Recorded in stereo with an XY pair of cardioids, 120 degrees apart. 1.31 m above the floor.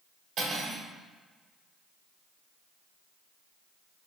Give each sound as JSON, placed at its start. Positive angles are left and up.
{"t": 0.4, "sound": "cutlery clinking", "azimuth_deg": -60, "distance_m": 1.7}